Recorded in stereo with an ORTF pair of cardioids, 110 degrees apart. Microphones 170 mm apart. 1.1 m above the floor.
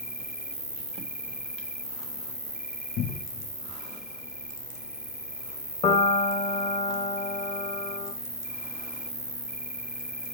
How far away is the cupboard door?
About 1.3 m.